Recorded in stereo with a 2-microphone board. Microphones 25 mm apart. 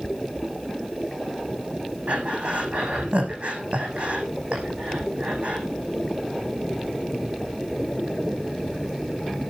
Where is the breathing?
60° right (ahead or behind), 6 m.